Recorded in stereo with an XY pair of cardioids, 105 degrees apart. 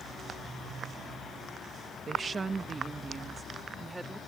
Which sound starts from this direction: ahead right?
A woman speaking, at 2.1 s.